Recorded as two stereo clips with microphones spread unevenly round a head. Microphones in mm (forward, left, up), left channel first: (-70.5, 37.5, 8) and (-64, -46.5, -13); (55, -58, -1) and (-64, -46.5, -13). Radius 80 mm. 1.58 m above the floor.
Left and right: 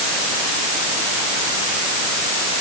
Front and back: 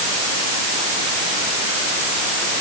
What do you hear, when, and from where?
Only background noise.